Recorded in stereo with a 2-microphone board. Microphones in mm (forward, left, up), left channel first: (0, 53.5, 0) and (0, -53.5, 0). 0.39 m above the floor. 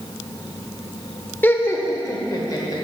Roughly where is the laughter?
Centre.